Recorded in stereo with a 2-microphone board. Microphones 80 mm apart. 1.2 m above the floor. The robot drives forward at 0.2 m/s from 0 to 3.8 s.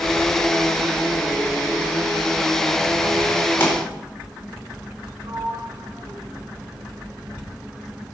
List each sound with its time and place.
3.6 s a pop: 25° left (ahead or behind), 4 m
5.2 s a sliding door: 65° right (ahead or behind), 6 m